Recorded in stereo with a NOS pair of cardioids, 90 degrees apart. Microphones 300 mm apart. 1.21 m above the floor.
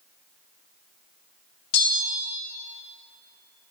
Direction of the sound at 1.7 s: 55° left.